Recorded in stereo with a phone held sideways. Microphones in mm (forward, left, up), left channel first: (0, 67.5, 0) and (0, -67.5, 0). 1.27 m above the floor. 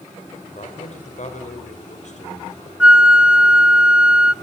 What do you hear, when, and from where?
0.6 s a man speaking: 65° left (ahead or behind), 5 m
2.8 s a flute: 5° right (ahead or behind), 0.6 m